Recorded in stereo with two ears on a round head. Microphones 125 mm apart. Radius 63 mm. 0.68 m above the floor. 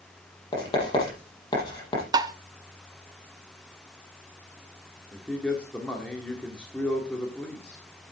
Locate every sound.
0.5 s writing: 30° left (ahead or behind), 6 m
2.1 s tapping: 25° right (ahead or behind), 0.6 m
5.1 s a man speaking: 5° left (ahead or behind), 1.6 m